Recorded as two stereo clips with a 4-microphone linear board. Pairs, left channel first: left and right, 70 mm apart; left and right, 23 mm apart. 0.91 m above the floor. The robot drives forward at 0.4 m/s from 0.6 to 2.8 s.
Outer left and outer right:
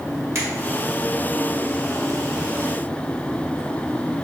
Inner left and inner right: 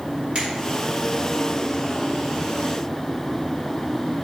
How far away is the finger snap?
About 1.8 m.